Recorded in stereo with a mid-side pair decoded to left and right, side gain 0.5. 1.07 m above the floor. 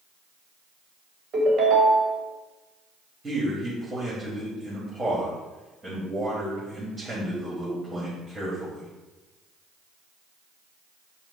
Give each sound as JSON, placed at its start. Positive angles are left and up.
{"t": 1.3, "sound": "a ringtone", "azimuth_deg": -55, "distance_m": 1.3}
{"t": 3.2, "sound": "a man speaking", "azimuth_deg": -30, "distance_m": 1.9}